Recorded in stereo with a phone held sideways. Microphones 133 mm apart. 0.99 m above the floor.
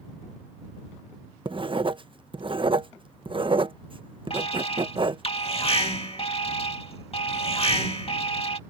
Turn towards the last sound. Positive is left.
turn(degrees=45)  # may be behind; listen again after turning